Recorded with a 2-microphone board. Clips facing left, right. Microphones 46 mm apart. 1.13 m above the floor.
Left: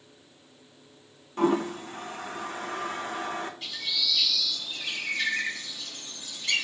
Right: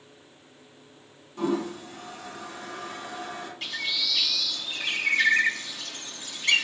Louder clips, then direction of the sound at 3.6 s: Right 2 dB; 60° right (ahead or behind).